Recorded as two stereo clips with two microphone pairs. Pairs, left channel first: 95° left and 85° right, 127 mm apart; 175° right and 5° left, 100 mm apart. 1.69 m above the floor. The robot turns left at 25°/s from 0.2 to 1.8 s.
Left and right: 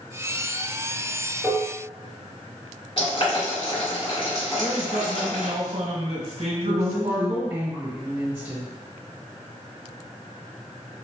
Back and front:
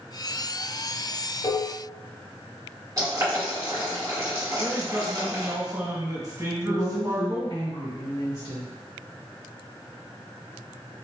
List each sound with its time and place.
1.4 s dishes clattering: 175° left, 1.0 m; by 1.8 s 165° left, 1.0 m
3.0 s boiling: 55° left, 1.9 m
4.5 s a man speaking: 45° right, 1.3 m
6.7 s a woman speaking: 140° right, 1.4 m